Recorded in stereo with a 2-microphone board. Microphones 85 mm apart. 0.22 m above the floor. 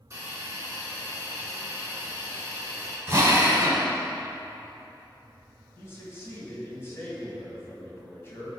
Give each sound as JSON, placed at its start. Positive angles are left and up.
{"t": 0.1, "sound": "a hiss", "side_deg": -30, "distance_m": 2.0}
{"t": 3.1, "sound": "a drill", "side_deg": -35, "distance_m": 1.3}
{"t": 5.8, "sound": "a man speaking", "side_deg": 30, "distance_m": 1.8}